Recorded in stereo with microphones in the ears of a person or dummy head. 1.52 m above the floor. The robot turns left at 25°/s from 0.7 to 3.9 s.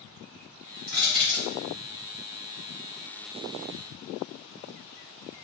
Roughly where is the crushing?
Centre.